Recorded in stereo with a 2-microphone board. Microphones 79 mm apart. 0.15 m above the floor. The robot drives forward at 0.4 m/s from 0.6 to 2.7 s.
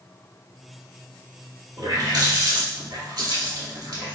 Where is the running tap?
60° right (ahead or behind), 1.5 m.